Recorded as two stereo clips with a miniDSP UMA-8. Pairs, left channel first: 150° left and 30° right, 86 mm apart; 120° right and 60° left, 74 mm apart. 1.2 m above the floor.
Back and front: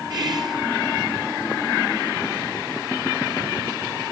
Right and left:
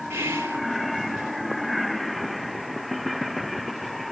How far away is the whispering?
About 1.4 m.